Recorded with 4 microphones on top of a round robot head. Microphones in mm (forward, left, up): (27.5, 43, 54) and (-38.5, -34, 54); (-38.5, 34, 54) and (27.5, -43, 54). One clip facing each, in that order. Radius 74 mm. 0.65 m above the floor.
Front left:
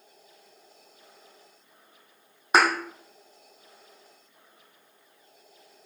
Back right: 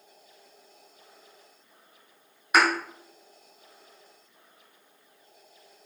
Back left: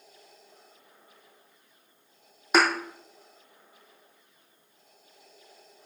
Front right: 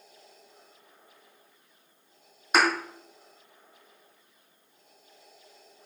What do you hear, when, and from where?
2.5 s a thud: 115° left, 2 m